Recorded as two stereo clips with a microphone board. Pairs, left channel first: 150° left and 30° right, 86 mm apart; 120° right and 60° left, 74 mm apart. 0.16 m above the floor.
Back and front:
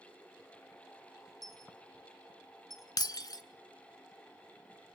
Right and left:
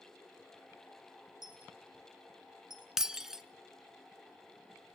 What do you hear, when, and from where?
1.4 s a dropped coin: 60° left, 2 m
3.0 s breaking glass: 140° left, 0.7 m